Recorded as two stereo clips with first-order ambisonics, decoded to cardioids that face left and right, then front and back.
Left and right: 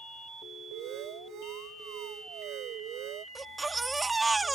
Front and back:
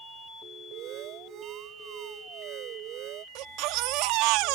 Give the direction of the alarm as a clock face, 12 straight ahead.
4 o'clock.